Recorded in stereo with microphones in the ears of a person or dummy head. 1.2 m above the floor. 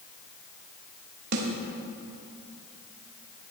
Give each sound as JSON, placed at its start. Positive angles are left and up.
{"t": 1.3, "sound": "a snare drum", "side_deg": -55, "distance_m": 1.5}